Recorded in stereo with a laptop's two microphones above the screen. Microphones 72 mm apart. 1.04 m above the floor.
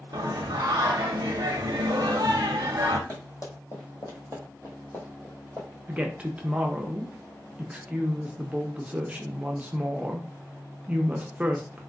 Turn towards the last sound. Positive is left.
turn(degrees=-20)  # may be behind; listen again after turning